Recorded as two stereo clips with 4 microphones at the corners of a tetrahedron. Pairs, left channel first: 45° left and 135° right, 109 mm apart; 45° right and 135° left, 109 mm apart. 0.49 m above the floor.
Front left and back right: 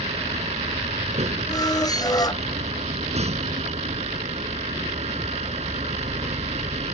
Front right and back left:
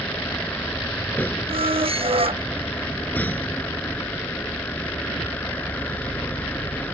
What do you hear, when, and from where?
0.0 s a vehicle: 120° right
1.5 s a squeak: 100° left